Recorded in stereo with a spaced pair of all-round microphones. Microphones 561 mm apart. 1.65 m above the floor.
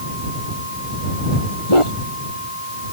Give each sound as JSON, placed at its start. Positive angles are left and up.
{"t": 1.7, "sound": "a dog barking", "side_deg": 60}